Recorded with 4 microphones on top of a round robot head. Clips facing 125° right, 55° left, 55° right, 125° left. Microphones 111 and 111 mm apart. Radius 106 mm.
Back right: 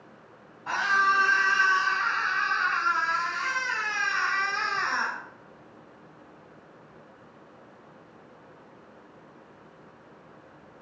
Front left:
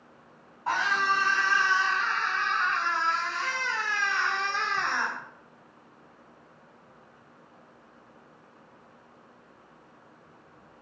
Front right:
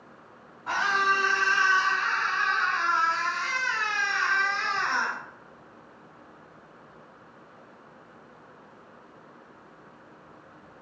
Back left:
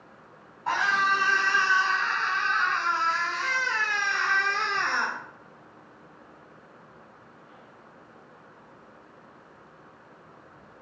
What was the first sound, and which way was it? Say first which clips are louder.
A scream: back right 1 dB, back left 1 dB; 105° left.